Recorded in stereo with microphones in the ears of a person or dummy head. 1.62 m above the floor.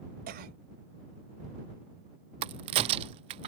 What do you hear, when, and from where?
0.3 s a cough: 45° right (ahead or behind)
2.4 s a crack: 25° right (ahead or behind)